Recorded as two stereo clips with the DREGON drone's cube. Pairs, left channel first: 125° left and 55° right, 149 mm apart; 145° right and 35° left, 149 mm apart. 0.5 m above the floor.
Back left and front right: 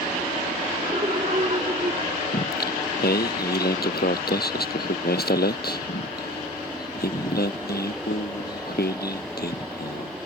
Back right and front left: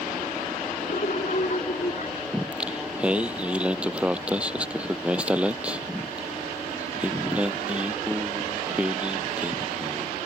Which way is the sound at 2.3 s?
120° left.